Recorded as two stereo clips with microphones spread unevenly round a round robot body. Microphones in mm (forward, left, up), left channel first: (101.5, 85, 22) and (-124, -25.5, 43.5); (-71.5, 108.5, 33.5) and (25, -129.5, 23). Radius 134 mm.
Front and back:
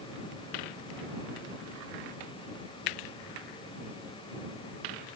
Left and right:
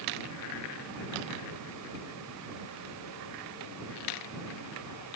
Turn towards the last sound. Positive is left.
No sound to turn to.